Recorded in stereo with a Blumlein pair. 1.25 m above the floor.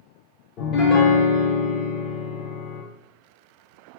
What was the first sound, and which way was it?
A piano, 30° left.